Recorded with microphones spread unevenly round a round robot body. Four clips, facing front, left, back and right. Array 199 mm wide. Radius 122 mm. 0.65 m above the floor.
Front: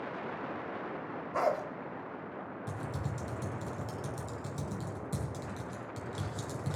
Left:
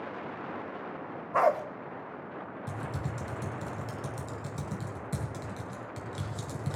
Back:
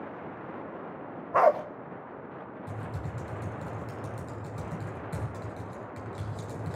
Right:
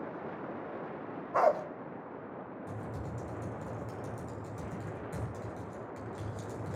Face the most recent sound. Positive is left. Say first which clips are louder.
# left 5 dB, even
turn(degrees=80)